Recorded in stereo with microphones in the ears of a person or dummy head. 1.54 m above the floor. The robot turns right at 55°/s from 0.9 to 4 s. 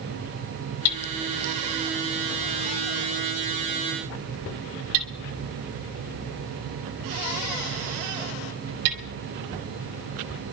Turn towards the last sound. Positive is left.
turn(degrees=-75)  # may be behind; listen again after turning